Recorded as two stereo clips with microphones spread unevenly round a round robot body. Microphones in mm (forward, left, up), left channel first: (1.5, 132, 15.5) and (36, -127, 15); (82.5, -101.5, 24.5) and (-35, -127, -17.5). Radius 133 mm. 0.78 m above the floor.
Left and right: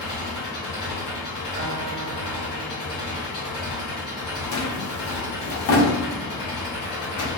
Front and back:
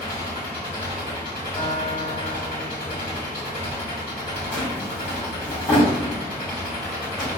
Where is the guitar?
35° right, 0.7 m.